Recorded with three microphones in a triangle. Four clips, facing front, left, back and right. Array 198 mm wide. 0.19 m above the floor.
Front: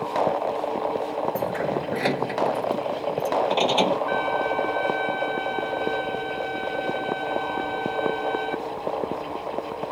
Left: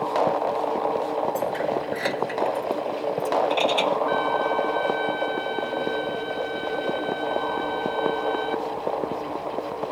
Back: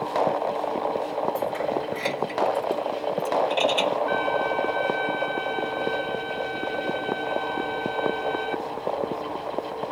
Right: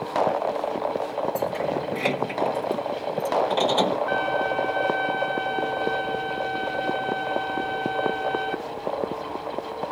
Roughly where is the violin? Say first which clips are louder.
Left 1 dB, even; right.